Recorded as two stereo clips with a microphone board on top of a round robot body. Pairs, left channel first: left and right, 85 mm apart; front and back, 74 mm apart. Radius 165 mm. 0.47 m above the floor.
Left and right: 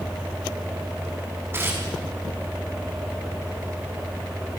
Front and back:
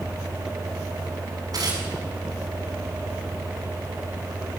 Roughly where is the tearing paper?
Behind right.